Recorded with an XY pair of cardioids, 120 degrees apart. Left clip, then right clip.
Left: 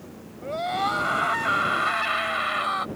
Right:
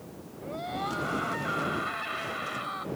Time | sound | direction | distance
0.4 | a scream | 50° left | ?